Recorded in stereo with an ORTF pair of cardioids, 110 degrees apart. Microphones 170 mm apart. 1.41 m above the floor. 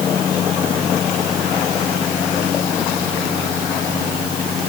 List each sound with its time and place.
Only background noise.